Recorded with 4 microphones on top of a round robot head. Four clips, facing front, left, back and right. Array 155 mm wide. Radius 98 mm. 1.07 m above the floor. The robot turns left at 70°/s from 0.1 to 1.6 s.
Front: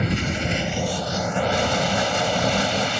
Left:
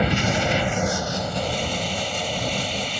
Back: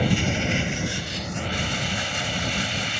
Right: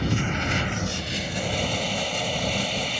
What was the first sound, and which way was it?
Running water, 110° left.